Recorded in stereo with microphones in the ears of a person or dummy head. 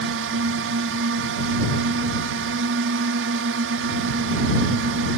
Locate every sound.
0.0 s a drone: 65° right (ahead or behind)